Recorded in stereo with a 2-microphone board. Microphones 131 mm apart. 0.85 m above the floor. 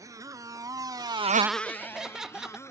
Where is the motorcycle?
25° right (ahead or behind); by 2.7 s 20° left (ahead or behind).